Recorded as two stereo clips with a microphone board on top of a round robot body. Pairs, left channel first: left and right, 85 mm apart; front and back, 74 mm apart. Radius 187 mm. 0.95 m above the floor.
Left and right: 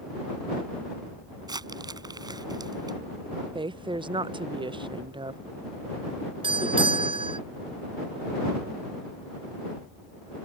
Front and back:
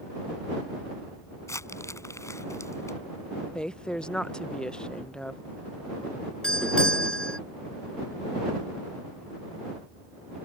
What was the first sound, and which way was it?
Crumpling, 50° right.